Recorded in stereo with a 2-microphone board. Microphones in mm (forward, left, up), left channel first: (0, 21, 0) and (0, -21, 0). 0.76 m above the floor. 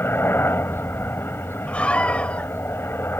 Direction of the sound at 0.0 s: 65° left (ahead or behind).